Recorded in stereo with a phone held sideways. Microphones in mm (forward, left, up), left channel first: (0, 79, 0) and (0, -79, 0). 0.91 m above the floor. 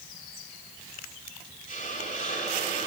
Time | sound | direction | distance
1.7 | a hiss | 55° left (ahead or behind) | 3 m